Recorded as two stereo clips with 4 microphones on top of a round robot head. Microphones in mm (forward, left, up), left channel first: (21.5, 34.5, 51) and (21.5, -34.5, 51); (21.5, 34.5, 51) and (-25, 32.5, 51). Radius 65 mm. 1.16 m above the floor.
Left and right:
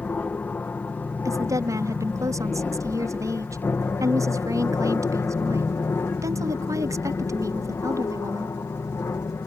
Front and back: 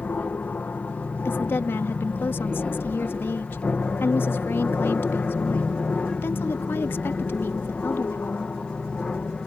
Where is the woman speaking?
50° right.